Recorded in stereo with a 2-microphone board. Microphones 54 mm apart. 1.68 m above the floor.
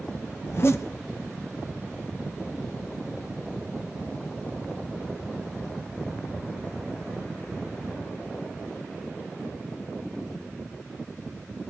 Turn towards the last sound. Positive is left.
turn(degrees=55)  # may be behind; listen again after turning